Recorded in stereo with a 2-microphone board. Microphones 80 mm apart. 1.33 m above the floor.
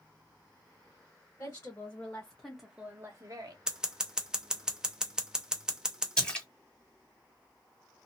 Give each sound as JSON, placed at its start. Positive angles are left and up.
{"t": 1.4, "sound": "a woman speaking", "side_deg": 45, "distance_m": 1.5}
{"t": 3.7, "sound": "scissors", "side_deg": -10, "distance_m": 0.7}
{"t": 6.2, "sound": "a splash", "side_deg": 10, "distance_m": 1.4}